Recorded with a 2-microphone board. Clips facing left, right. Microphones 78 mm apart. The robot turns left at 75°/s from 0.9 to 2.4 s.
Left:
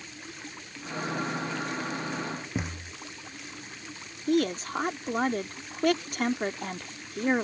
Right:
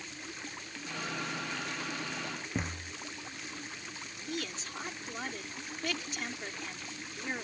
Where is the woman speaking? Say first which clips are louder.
Left 15 dB; 55° left (ahead or behind).